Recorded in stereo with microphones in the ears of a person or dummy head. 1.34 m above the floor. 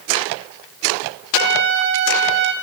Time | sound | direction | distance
1.3 | a trumpet | 60° right (ahead or behind) | 2.5 m